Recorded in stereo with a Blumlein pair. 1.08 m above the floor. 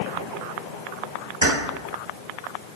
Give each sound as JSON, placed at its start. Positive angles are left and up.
{"t": 1.4, "sound": "keys jangling", "azimuth_deg": -70, "distance_m": 1.4}